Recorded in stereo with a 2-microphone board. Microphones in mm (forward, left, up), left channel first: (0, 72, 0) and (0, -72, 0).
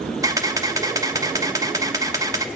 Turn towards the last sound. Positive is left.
turn(degrees=-25)  # may be behind; listen again after turning